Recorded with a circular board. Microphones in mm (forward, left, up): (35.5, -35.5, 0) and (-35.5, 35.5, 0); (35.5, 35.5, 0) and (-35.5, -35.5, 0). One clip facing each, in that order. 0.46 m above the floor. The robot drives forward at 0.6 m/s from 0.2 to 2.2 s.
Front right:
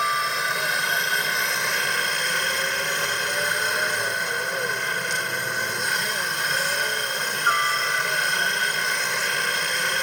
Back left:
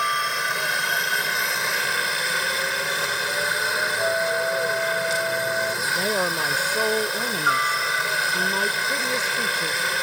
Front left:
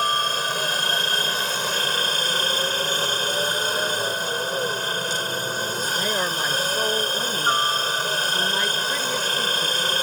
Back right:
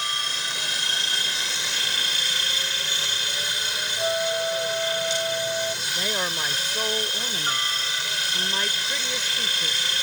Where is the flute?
170° left.